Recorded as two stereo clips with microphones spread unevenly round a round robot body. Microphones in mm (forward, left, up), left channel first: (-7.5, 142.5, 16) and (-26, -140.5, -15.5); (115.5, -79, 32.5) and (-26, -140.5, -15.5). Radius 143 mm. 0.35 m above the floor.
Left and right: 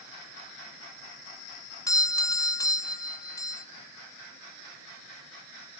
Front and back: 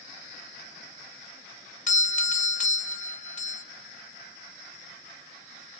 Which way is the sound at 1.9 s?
5° left.